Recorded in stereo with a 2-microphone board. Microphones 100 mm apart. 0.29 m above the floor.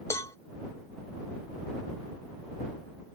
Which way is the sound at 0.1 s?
35° left (ahead or behind).